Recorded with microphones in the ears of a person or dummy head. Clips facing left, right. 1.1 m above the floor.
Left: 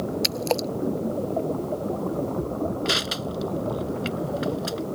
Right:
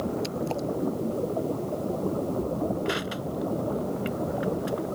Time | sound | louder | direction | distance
0.2 | a splash | left 3 dB | 80° left | ?
2.9 | crushing | left 1 dB | 55° left (ahead or behind) | ?